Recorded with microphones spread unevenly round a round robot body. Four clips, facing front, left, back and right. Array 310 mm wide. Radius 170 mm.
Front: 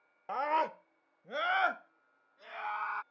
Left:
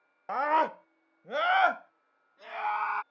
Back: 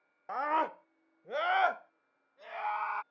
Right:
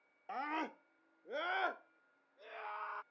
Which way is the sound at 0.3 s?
75° left.